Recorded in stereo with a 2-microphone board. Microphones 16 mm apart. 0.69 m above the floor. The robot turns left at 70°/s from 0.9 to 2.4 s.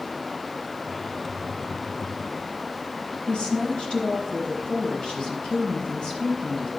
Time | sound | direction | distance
3.3 | a woman speaking | 60° left (ahead or behind) | 4 m